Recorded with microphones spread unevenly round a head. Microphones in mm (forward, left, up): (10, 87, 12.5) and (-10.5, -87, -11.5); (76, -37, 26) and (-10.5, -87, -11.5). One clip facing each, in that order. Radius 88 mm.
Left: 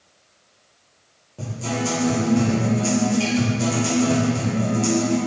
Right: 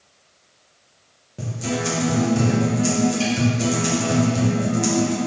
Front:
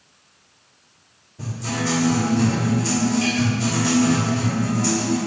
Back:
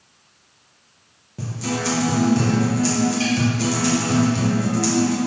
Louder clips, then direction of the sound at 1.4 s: Even, back 1 dB; 165° right.